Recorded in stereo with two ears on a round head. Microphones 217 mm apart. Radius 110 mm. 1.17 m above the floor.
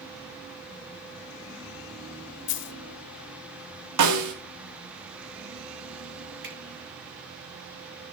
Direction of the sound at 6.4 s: 55° right (ahead or behind).